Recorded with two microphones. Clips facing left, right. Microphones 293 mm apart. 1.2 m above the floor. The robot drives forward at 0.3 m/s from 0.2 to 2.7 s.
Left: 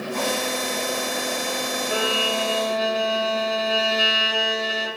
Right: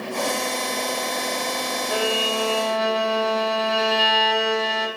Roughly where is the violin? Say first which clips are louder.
Right 2 dB; centre.